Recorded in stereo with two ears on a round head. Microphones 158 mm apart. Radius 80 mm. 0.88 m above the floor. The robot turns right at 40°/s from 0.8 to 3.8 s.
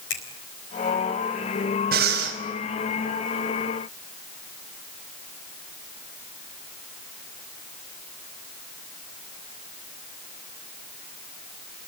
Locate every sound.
0.1 s a finger snap: 75° left (ahead or behind), 4 m
1.9 s breathing: 60° right (ahead or behind), 5 m; by 2.4 s 80° right, 5 m